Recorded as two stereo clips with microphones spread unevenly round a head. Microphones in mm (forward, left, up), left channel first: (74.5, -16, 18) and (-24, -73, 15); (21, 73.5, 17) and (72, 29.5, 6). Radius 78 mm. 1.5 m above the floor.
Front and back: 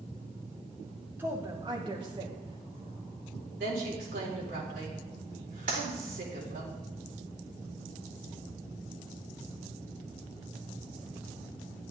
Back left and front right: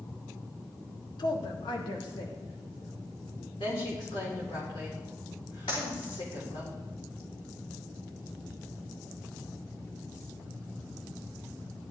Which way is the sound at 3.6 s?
175° left.